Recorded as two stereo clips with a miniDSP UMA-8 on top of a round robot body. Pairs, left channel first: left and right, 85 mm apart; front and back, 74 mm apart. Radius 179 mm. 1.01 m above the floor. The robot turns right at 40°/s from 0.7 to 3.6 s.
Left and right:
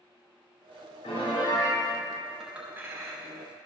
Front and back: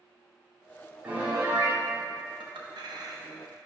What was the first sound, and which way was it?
A piano, 105° left.